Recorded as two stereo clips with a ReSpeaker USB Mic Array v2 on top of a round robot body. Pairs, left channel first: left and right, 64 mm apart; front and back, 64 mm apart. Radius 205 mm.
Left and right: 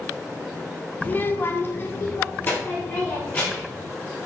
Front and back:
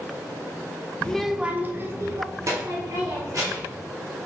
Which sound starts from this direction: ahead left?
A child speaking, at 1.0 s.